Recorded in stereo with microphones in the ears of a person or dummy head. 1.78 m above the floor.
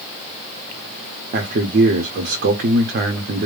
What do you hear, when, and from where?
1.3 s a man speaking: 45° right (ahead or behind), 0.9 m